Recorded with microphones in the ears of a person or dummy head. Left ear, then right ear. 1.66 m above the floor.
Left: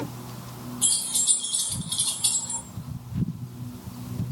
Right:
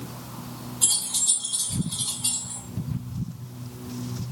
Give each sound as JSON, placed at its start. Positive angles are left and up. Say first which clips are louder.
{"t": 0.8, "sound": "keys jangling", "louder": "right 1 dB", "side_deg": -10, "distance_m": 0.8}